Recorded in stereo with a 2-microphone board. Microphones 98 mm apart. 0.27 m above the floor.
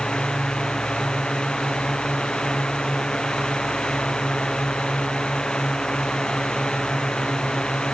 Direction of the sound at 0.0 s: 5° left (ahead or behind).